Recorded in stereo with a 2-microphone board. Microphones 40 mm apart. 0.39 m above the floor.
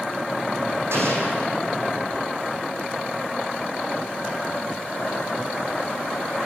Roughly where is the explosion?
Right.